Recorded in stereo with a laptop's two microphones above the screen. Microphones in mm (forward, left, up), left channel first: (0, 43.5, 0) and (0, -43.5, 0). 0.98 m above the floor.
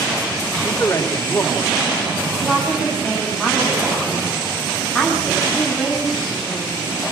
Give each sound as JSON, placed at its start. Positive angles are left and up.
{"t": 0.6, "sound": "a man speaking", "side_deg": 35, "distance_m": 3.0}
{"t": 2.4, "sound": "a woman speaking", "side_deg": 10, "distance_m": 10.0}